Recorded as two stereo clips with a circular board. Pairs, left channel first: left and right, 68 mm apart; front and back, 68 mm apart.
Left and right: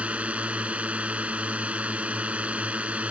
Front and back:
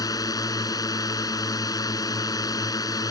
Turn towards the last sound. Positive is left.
turn(degrees=-20)